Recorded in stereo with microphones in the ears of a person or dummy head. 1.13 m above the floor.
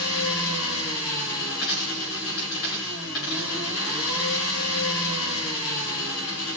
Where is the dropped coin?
75° left (ahead or behind), 5.5 m.